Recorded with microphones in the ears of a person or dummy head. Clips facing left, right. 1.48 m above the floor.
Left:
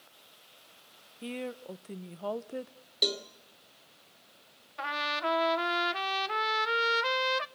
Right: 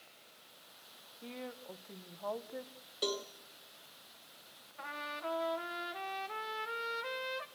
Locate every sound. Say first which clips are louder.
1.2 s a woman speaking: left 8 dB; 45° left (ahead or behind), 0.8 m
3.0 s a cowbell: left 2 dB; 20° left (ahead or behind), 1.3 m
4.8 s a trumpet: left 8 dB; 80° left, 0.8 m